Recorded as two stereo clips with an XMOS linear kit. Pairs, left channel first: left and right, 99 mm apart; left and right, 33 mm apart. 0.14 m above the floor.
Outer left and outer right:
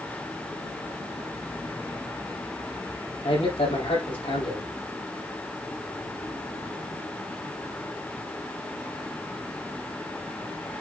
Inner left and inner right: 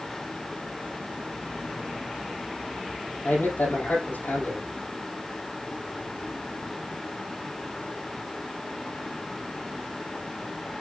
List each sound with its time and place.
3.2 s a man speaking: 75° left (ahead or behind), 6 m